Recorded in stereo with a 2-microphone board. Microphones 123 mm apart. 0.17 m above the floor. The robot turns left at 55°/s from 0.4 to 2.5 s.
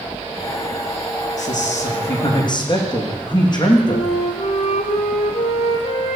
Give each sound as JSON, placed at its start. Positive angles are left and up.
{"t": 1.4, "sound": "a man speaking", "azimuth_deg": 100, "distance_m": 7.5}
{"t": 3.9, "sound": "a flute", "side_deg": 60, "distance_m": 5.0}